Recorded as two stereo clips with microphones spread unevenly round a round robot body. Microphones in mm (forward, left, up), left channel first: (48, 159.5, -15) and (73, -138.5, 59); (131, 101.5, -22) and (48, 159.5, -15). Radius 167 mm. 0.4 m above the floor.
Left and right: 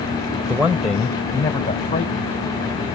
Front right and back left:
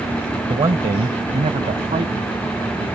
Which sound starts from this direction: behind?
A man speaking, at 0.5 s.